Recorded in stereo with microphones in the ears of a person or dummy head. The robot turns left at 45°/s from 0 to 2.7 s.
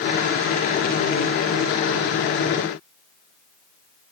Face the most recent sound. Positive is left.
No sound to turn to.